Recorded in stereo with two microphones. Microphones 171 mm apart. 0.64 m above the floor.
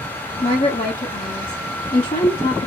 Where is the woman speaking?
45° left (ahead or behind), 1.2 m.